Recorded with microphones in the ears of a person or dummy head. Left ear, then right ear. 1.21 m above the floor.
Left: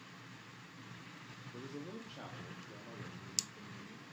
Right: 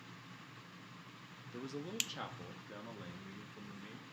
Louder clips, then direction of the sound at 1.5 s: Right 7 dB; 20° right (ahead or behind).